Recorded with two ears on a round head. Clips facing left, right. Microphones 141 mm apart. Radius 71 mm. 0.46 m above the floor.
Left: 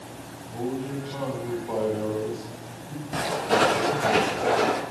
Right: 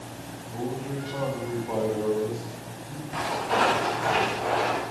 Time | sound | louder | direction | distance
0.5 | a man speaking | left 2 dB | centre (ahead or behind) | 4.5 m
3.1 | footsteps | left 2 dB | 45° left (ahead or behind) | 9 m